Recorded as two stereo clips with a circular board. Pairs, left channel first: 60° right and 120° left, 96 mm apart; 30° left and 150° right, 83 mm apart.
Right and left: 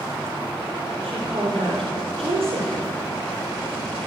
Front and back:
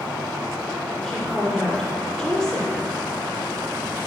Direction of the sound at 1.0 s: 120° left.